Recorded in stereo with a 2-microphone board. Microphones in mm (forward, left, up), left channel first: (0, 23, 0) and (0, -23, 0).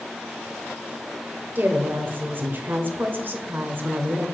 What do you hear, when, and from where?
1.6 s a woman speaking: 40° right (ahead or behind), 1.1 m